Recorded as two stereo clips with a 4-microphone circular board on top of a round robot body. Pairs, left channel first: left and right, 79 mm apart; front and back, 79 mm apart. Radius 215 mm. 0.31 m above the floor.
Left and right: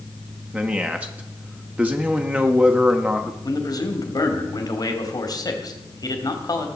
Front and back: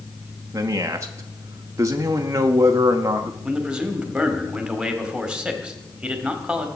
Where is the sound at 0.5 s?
155° right, 1.1 m.